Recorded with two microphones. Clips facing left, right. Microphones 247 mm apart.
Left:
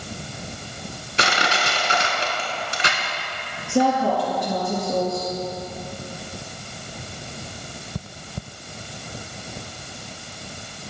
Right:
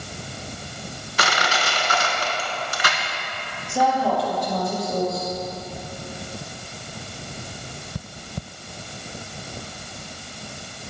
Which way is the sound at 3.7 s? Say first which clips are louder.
Left 3 dB; 60° left (ahead or behind).